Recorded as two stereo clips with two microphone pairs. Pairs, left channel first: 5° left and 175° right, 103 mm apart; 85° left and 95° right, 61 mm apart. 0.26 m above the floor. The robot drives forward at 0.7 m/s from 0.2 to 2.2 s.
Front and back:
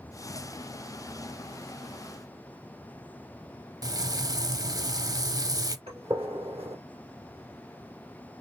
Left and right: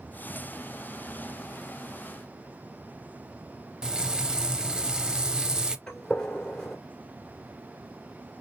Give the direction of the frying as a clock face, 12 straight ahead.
5 o'clock.